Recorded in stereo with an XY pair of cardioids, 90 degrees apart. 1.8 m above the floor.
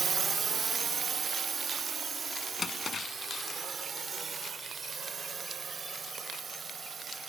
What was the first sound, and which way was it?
A drone, 50° right.